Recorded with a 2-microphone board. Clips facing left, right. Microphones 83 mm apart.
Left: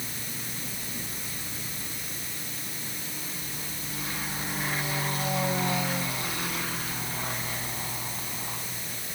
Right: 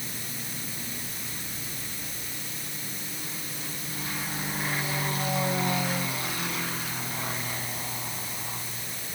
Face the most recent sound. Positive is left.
No sound to turn to.